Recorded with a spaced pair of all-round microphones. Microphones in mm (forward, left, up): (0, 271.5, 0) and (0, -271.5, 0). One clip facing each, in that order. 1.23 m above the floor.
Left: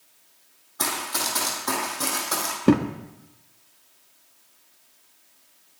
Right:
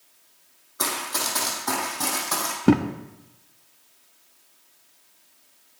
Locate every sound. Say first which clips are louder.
0.8 s running footsteps: even; 15° left (ahead or behind), 3 m; by 2.6 s 25° right (ahead or behind), 3 m
2.7 s a thud: even; 5° right (ahead or behind), 0.6 m